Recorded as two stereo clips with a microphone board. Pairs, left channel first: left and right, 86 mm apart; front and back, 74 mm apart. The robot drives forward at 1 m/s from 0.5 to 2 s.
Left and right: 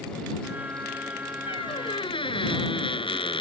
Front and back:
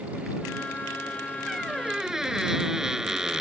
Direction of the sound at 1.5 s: 90° left.